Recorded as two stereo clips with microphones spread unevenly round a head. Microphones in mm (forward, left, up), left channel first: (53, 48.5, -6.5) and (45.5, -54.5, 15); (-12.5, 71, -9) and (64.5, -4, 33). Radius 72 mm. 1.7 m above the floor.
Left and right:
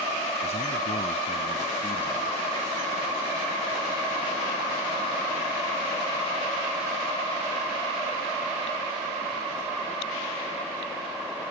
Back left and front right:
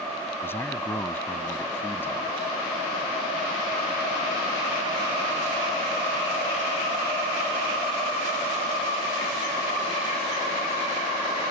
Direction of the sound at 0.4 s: 65° left.